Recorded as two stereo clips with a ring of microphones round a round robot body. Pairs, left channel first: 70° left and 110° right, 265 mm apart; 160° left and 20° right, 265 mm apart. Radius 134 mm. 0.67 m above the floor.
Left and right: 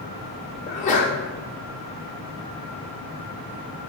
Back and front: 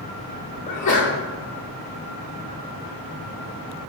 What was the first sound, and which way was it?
A sneeze, 115° left.